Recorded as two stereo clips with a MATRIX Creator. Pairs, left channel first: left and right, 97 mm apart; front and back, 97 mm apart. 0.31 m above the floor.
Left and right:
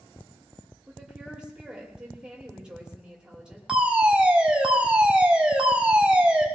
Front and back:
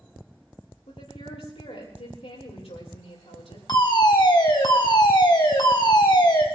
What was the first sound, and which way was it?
A woman speaking, 10° right.